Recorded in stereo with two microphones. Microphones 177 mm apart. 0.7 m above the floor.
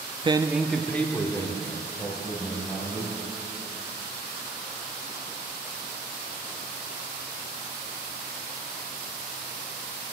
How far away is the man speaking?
About 0.6 m.